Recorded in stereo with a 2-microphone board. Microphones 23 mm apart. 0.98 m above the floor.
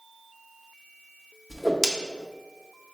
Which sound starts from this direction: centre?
A whoosh, at 1.5 s.